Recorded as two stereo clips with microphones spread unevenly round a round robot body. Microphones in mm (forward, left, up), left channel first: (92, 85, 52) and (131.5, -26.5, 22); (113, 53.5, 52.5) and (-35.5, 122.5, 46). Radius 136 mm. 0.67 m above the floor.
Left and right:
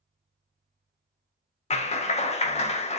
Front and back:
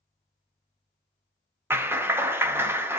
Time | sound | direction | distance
1.7 | a clap | 85° left | 0.6 m